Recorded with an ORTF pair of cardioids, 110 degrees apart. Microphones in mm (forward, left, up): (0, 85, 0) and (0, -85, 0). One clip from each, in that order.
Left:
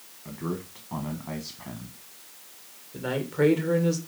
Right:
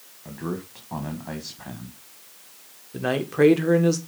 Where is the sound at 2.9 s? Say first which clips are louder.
Right 5 dB; 35° right, 1.6 m.